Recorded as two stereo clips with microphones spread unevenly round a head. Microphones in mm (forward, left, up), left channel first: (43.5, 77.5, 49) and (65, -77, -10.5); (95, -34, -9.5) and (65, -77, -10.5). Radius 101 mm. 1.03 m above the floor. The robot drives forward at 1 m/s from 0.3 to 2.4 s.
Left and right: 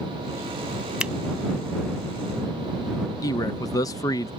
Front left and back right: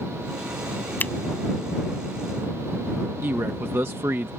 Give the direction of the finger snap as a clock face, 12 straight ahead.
12 o'clock.